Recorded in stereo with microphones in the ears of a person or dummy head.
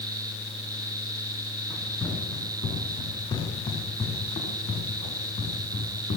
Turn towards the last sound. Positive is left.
turn(degrees=40)  # may be behind; listen again after turning